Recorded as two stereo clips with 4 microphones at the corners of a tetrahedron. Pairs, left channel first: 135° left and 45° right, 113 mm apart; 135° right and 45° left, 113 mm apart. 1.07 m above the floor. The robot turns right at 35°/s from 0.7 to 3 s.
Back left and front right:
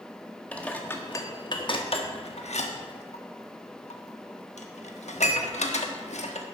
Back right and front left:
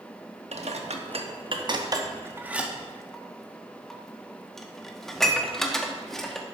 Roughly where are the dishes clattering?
Ahead left.